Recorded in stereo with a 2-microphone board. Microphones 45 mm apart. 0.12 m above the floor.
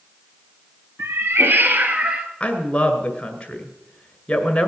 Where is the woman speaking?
25° left (ahead or behind), 1.8 m.